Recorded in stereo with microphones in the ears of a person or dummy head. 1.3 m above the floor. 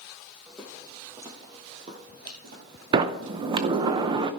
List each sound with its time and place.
0.5 s footsteps: centre (ahead or behind), 3 m; by 3.9 s 65° right (ahead or behind), 3.5 m
2.9 s a sliding door: 25° right (ahead or behind), 0.6 m